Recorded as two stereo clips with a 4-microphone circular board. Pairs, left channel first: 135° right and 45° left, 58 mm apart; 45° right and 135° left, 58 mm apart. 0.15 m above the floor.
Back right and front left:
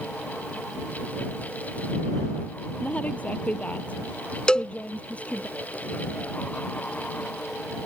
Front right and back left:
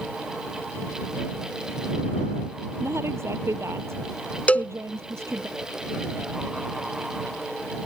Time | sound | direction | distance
2.8 | a woman speaking | 165° left | ?
4.5 | a cowbell | 80° right | ?